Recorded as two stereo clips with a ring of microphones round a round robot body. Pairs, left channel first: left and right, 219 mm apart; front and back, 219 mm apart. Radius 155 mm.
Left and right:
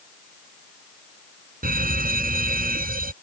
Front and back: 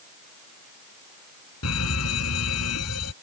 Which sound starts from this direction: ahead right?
A fire alarm, at 1.6 s.